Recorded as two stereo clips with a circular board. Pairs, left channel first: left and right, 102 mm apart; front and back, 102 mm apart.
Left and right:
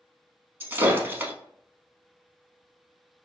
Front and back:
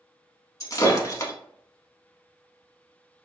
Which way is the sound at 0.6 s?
30° right.